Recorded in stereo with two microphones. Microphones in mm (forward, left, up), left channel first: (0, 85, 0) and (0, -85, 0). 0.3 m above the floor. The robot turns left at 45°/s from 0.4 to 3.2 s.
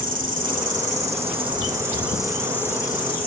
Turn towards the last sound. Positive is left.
turn(degrees=140)